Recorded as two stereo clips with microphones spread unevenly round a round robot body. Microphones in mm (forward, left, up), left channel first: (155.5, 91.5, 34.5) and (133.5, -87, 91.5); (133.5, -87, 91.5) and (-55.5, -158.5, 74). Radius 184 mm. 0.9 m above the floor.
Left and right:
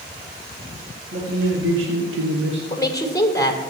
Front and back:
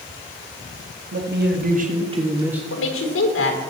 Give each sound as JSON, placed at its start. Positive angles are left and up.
{"t": 1.1, "sound": "a man speaking", "azimuth_deg": -140, "distance_m": 1.9}
{"t": 2.7, "sound": "a woman speaking", "azimuth_deg": 15, "distance_m": 3.0}